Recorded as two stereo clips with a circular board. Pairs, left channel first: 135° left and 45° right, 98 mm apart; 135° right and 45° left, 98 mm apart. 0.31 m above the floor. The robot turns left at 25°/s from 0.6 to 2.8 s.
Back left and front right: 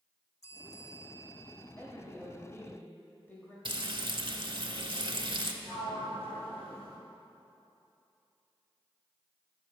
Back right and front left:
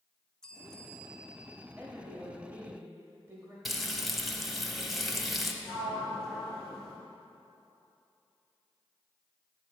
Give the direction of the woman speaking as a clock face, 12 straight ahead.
8 o'clock.